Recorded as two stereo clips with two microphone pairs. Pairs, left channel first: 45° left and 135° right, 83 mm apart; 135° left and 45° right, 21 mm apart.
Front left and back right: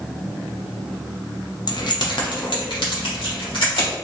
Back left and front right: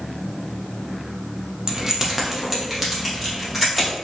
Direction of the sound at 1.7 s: 10° left.